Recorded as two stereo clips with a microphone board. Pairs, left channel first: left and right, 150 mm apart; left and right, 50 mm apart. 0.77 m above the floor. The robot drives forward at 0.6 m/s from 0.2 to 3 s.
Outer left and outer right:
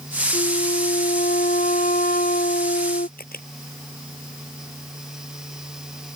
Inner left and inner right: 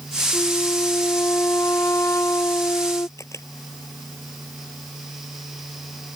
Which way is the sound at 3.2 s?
85° left.